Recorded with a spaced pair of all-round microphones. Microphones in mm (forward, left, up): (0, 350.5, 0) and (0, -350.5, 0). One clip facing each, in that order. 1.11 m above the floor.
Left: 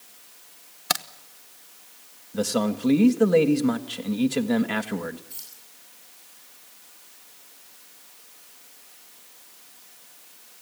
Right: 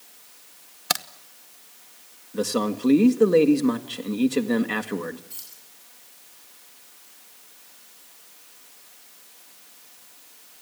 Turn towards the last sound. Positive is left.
turn(degrees=-10)  # may be behind; listen again after turning